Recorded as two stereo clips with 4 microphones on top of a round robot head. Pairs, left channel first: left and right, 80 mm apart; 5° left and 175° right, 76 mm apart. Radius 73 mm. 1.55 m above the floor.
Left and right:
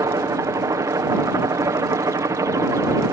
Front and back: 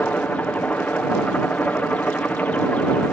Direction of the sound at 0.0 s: 65° right.